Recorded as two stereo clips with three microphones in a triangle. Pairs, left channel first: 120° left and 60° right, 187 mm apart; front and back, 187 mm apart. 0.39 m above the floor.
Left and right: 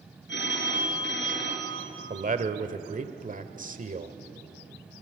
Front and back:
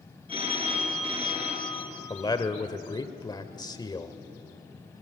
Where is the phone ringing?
120° left, 5 m.